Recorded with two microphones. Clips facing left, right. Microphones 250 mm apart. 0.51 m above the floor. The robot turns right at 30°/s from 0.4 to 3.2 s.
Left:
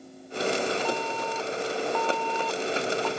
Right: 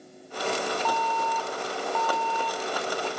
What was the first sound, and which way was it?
An alarm, 15° left (ahead or behind).